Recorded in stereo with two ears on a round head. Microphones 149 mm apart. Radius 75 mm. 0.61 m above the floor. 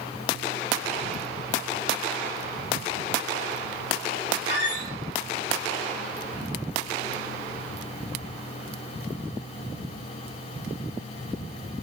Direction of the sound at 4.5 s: 45° left (ahead or behind).